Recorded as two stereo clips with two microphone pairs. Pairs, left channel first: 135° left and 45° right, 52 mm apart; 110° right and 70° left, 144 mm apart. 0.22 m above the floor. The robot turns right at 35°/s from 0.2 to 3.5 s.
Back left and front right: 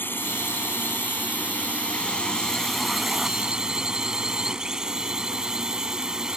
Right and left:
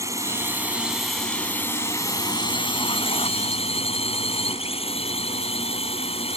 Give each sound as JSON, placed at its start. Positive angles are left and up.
{"t": 0.0, "sound": "a drone", "azimuth_deg": 130}